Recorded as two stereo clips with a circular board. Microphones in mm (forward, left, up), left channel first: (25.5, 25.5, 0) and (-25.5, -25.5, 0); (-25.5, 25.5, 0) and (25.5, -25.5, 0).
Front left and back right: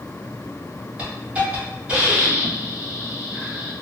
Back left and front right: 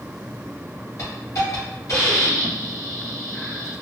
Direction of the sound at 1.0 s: 155° left.